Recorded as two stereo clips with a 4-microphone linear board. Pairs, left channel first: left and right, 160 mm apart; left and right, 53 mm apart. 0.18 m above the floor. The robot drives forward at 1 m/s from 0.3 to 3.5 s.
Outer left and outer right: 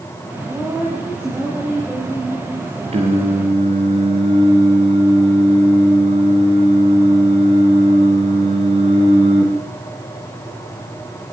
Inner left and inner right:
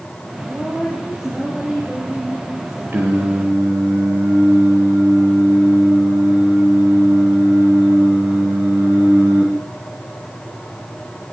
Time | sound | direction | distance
0.5 | a woman speaking | 10° right (ahead or behind) | 8 m
2.9 | singing | 40° right (ahead or behind) | 8.5 m